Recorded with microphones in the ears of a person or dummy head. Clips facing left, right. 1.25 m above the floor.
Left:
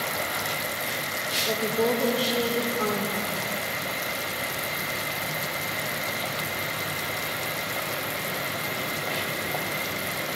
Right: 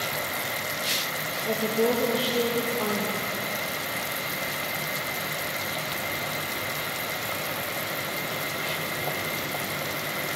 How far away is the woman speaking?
About 0.7 m.